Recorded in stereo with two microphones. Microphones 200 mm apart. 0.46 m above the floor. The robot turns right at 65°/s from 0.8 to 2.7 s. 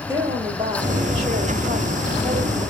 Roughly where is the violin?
No violin in this recording.